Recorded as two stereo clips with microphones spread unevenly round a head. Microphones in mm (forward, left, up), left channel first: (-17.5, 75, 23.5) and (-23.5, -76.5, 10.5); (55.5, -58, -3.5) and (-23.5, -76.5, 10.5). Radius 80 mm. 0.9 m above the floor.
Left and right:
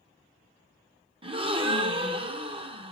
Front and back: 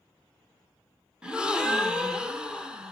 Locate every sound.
1.2 s a gasp: 80° right, 1.0 m